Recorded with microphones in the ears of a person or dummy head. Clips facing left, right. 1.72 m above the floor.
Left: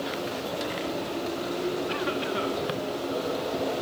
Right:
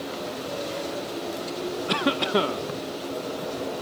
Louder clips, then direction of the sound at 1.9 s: Right 4 dB; 55° right (ahead or behind).